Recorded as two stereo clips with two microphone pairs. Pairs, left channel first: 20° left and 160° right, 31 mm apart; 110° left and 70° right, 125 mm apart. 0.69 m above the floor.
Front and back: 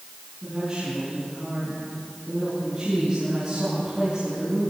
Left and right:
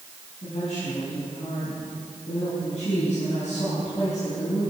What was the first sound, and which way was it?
A woman speaking, 140° left.